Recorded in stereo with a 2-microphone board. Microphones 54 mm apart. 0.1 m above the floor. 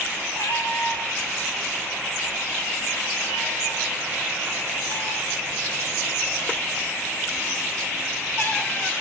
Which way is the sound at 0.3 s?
80° left.